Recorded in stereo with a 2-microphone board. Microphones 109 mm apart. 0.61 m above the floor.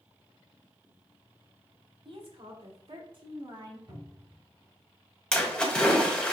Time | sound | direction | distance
2.0 | a woman speaking | 60° right (ahead or behind) | 1.1 m
3.9 | a cupboard door | 35° right (ahead or behind) | 2 m
5.3 | a splash | 10° left (ahead or behind) | 1.1 m